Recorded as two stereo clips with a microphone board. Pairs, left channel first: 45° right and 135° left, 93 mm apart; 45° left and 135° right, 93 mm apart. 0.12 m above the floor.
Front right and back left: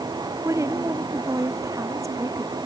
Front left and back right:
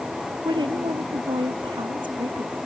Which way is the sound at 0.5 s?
170° right.